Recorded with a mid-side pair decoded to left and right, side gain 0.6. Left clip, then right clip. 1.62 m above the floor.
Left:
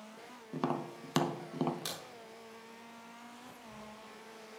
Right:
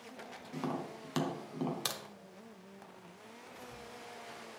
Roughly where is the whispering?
Ahead.